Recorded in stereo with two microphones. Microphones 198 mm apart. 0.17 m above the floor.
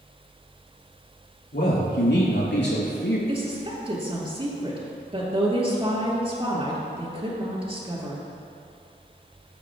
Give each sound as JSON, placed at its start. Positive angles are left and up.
{"t": 1.5, "sound": "a man speaking", "side_deg": 70, "distance_m": 3.5}
{"t": 3.3, "sound": "a woman speaking", "side_deg": -30, "distance_m": 3.0}